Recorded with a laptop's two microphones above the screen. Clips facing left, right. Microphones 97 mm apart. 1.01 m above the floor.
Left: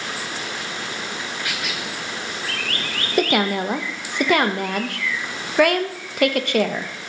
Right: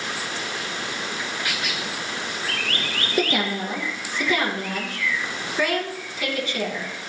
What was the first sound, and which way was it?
A woman speaking, 65° left (ahead or behind).